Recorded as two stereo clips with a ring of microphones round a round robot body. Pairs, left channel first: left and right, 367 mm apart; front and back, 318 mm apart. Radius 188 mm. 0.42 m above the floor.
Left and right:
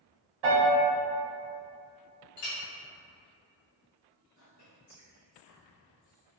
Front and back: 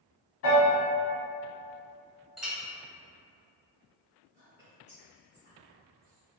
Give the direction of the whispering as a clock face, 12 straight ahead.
8 o'clock.